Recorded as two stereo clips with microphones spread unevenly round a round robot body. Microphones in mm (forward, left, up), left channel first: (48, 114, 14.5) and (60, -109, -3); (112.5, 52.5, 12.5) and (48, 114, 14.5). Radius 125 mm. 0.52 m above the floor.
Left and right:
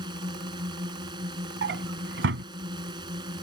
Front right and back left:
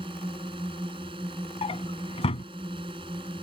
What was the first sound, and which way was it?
A drone, 160° right.